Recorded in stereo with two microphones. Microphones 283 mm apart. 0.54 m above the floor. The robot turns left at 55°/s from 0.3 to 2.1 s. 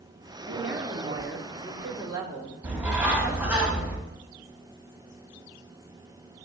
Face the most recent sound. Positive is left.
turn(degrees=-5)  # may be behind; listen again after turning